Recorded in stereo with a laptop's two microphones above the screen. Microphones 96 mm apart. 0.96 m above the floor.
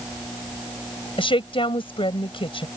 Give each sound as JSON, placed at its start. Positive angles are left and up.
{"t": 1.2, "sound": "a woman speaking", "side_deg": 70}